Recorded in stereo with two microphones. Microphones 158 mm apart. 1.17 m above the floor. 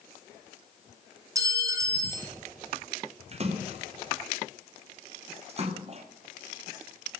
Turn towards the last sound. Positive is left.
turn(degrees=-40)  # may be behind; listen again after turning